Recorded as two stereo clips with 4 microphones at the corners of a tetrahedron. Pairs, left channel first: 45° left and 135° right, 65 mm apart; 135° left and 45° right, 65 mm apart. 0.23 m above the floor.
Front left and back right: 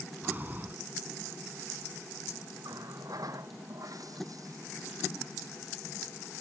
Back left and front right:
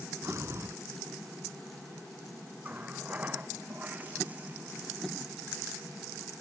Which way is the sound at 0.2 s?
80° right.